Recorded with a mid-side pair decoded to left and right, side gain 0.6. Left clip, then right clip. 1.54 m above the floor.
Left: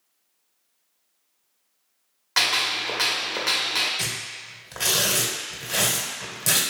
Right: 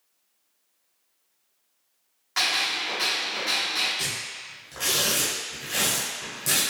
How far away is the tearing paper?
About 1.1 m.